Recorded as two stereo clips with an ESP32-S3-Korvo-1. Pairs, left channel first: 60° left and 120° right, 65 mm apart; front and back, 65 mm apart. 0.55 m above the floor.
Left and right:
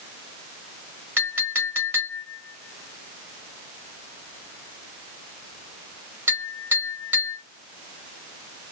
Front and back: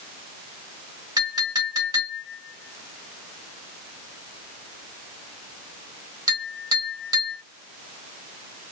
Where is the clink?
Straight behind, 2.0 m.